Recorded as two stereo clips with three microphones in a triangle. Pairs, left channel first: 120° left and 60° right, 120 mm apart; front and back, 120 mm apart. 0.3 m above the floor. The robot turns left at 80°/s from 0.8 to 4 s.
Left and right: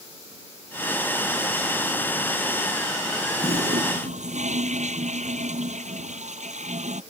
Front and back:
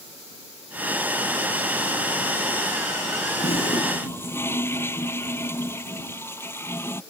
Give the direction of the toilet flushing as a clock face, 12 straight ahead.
1 o'clock.